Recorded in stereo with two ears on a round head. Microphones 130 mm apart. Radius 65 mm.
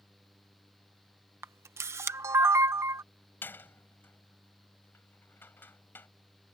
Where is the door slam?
15° left (ahead or behind).